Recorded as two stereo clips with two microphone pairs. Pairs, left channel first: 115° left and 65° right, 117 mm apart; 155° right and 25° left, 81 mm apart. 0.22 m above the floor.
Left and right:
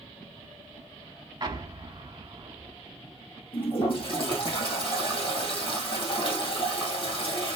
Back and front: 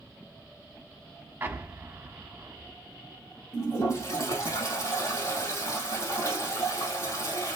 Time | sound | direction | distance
1.4 | an explosion | 30° right | 0.8 m
3.5 | a toilet flushing | 155° left | 2.5 m